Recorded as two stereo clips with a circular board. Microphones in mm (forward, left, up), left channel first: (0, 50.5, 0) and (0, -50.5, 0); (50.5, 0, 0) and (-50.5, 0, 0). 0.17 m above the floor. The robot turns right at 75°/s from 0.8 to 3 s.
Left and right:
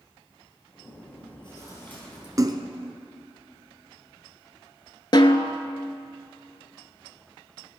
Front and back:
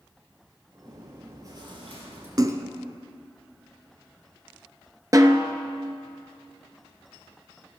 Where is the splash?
140° right, 0.8 m; by 2.7 s 115° right, 0.8 m.